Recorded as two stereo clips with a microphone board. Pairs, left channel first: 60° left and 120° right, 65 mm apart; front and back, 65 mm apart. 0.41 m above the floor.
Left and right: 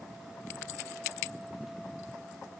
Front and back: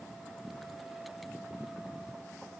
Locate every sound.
Only background noise.